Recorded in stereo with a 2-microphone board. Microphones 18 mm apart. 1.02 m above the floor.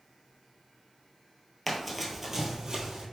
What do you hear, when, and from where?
1.7 s running footsteps: 10° left (ahead or behind), 1.3 m; by 3.0 s 45° right (ahead or behind), 1.8 m